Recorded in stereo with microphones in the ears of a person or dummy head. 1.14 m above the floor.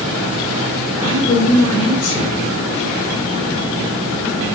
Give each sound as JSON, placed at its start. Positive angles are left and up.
{"t": 1.0, "sound": "a woman speaking", "side_deg": 25, "distance_m": 4.5}